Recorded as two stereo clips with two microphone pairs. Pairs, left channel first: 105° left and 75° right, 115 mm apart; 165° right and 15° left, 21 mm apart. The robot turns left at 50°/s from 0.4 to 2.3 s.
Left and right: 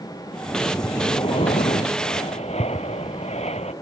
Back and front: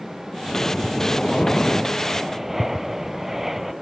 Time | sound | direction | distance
0.5 | breathing | straight behind | ?